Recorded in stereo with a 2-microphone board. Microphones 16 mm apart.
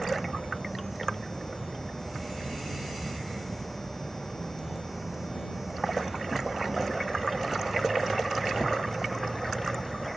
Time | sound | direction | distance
0.0 | an insect | 25° left (ahead or behind) | ?